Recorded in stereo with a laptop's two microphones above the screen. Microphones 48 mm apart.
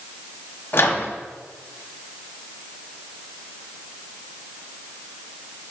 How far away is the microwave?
About 1.2 m.